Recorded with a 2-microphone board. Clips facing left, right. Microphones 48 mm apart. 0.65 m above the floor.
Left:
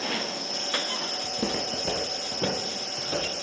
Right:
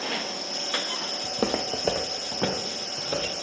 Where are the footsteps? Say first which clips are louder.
Right 5 dB; 50° right (ahead or behind), 1.1 m; by 3.3 s 30° right (ahead or behind), 2.5 m.